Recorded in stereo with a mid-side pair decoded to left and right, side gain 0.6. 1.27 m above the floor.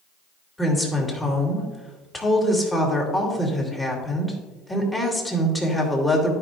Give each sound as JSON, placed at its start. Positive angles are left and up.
{"t": 0.6, "sound": "a woman speaking", "azimuth_deg": 15, "distance_m": 3.0}